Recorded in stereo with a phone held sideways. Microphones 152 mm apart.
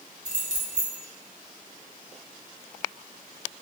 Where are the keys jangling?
50° right (ahead or behind), 2.5 m.